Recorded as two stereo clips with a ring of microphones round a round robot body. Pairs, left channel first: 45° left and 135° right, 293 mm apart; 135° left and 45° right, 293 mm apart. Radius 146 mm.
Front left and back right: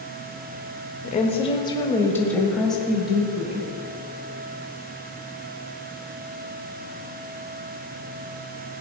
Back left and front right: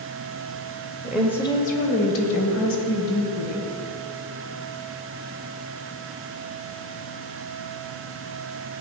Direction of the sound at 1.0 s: 20° left.